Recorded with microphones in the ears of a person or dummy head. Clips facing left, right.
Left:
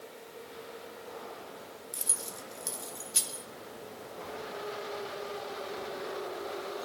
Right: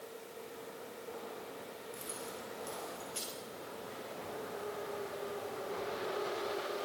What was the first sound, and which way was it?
Keys jangling, 70° left (ahead or behind).